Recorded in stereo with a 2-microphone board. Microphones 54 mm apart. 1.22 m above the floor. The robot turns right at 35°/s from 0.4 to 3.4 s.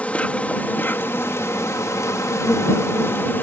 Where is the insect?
30° left; by 3.4 s 135° left.